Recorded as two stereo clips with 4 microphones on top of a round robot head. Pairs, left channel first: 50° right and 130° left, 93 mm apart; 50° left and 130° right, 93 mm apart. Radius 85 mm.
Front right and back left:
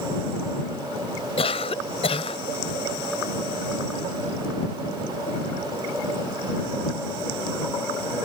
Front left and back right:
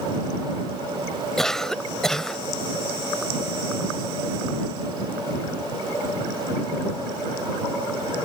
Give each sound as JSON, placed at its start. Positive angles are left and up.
{"t": 1.4, "sound": "a cough", "azimuth_deg": -35}